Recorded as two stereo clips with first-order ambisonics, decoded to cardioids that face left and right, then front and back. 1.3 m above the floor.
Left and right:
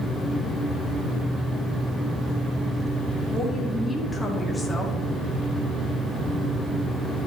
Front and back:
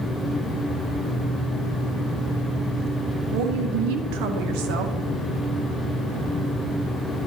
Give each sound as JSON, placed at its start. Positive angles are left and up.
{"t": 3.3, "sound": "a woman speaking", "azimuth_deg": 170, "distance_m": 0.9}